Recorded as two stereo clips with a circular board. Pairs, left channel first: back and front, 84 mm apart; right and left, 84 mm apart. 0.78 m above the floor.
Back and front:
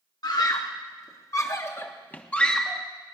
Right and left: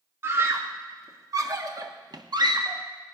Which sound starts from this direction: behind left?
A scream, at 0.2 s.